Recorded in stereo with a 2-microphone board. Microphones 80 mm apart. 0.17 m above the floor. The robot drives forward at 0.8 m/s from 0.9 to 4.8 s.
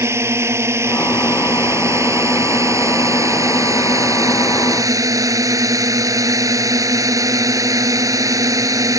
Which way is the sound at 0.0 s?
35° right (ahead or behind).